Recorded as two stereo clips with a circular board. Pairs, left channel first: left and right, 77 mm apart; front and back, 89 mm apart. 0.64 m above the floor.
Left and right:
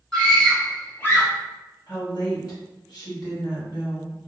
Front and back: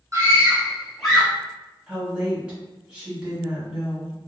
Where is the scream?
170° left, 1.1 m; by 1.3 s 70° left, 1.1 m.